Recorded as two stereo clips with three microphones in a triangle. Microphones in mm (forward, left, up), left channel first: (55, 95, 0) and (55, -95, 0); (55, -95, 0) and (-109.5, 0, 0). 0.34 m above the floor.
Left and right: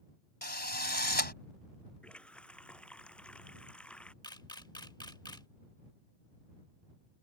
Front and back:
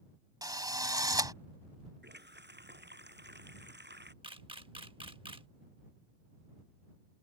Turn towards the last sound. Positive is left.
turn(degrees=130)